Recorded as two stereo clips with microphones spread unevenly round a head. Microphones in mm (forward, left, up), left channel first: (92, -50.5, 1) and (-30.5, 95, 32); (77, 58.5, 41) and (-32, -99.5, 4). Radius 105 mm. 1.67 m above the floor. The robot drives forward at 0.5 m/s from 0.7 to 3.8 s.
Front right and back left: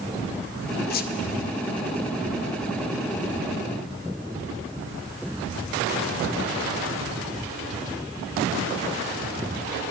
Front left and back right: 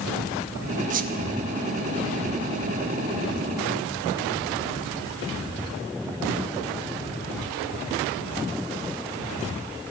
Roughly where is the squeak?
Right.